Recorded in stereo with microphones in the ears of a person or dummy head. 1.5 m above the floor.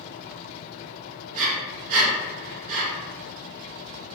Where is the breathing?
40° right (ahead or behind), 1.2 m.